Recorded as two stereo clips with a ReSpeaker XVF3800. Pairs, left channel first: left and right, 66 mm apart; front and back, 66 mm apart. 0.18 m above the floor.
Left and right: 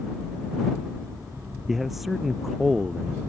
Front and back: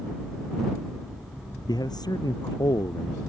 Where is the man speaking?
Straight ahead.